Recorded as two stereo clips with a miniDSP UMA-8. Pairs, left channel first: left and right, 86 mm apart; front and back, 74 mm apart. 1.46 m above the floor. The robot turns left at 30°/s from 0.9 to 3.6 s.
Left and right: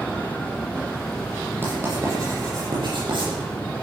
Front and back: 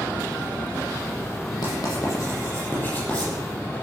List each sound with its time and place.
1.6 s writing: 25° right, 8 m; by 3.3 s 75° right, 8 m